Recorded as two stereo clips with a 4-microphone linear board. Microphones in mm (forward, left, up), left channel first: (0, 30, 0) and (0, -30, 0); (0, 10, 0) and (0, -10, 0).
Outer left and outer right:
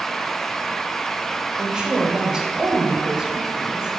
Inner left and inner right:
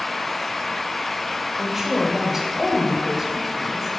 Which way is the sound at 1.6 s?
15° right (ahead or behind).